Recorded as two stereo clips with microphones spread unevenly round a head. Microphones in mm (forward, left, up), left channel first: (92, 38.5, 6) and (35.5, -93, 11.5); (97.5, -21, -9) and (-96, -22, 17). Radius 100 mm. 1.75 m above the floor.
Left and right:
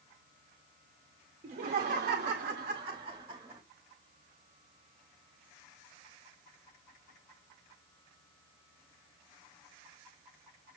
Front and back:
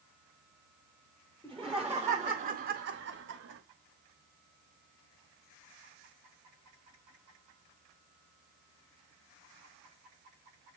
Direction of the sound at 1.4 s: 85° right.